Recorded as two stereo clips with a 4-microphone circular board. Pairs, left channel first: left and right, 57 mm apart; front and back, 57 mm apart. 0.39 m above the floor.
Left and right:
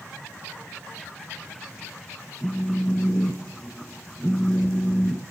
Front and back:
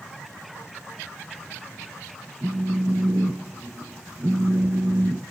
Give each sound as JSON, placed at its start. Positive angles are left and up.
{"t": 2.4, "sound": "a phone buzzing", "azimuth_deg": 165, "distance_m": 1.0}